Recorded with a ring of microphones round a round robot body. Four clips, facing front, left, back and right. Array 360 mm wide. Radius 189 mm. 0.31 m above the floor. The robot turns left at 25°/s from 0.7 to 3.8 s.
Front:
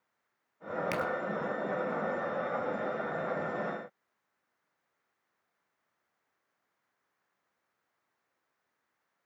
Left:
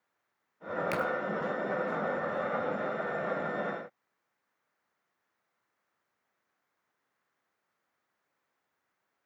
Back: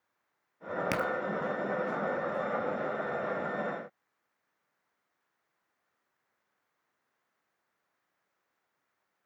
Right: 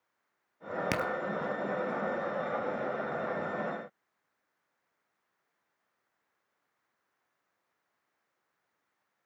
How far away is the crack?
About 1.7 m.